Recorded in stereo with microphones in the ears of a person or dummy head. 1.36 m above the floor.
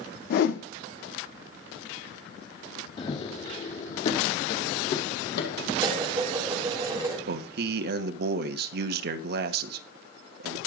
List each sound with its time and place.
0.3 s a whoosh: 60° left (ahead or behind), 0.9 m
3.0 s running footsteps: 30° left (ahead or behind), 2.5 m; by 5.7 s 60° left (ahead or behind), 3 m
5.8 s dishes clattering: 15° right (ahead or behind), 3.5 m
7.3 s a man speaking: 60° right (ahead or behind), 0.9 m